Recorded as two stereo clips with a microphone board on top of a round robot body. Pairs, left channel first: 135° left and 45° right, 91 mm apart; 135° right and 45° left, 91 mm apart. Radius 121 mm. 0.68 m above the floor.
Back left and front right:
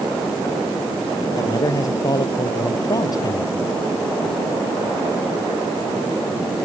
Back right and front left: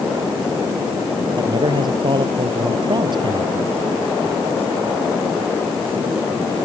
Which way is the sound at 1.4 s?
85° left.